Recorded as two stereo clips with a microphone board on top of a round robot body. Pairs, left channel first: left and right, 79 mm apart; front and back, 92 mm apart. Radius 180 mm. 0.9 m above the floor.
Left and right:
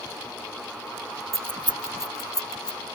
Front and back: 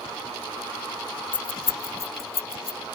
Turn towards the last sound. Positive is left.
turn(degrees=15)